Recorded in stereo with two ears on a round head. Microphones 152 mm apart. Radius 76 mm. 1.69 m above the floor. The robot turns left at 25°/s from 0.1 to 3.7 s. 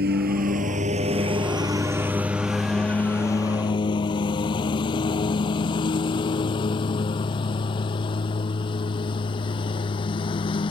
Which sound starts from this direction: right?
A lawn mower, at 0.0 s.